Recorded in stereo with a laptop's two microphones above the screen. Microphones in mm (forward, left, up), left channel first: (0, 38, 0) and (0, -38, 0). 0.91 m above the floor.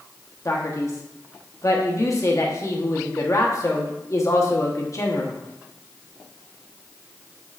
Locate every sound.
0.5 s a man speaking: 45° left (ahead or behind), 1.1 m